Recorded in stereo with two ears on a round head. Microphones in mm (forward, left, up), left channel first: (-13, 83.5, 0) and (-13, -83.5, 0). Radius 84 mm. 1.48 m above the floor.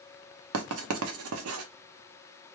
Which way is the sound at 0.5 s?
85° right.